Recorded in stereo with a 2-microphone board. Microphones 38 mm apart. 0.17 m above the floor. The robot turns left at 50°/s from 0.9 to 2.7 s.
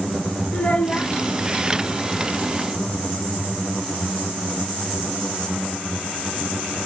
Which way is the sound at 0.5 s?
30° left (ahead or behind).